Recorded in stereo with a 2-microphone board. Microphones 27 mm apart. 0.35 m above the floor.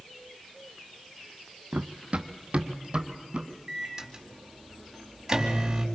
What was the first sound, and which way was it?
Running footsteps, 50° right (ahead or behind).